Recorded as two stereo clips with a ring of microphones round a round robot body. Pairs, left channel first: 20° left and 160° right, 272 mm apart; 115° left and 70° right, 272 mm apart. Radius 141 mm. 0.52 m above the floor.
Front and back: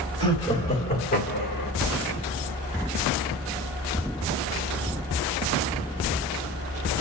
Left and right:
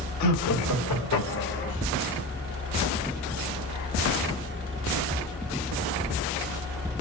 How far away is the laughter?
About 2.5 m.